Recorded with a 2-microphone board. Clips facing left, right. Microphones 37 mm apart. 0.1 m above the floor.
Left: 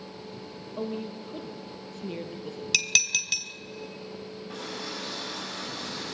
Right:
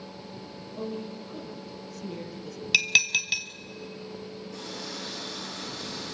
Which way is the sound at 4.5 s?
80° left.